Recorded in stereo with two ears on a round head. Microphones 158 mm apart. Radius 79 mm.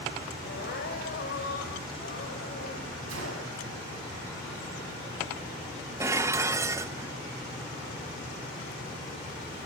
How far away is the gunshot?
About 8.5 m.